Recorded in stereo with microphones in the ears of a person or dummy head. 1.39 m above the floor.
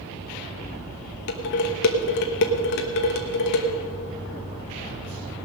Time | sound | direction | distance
1.3 | dishes clattering | 65° left (ahead or behind) | 1.2 m